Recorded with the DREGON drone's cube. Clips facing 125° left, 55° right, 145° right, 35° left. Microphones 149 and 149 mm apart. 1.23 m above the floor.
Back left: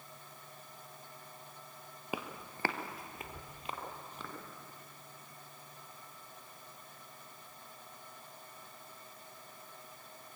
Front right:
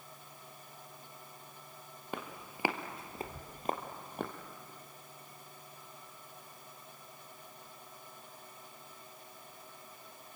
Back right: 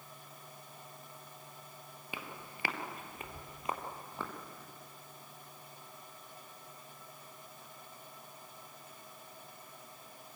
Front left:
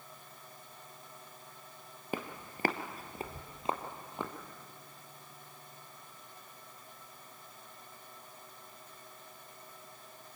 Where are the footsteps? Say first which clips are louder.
Back left 1 dB, front left 7 dB; 45° left, 1.7 m; by 4.3 s 35° right, 3 m.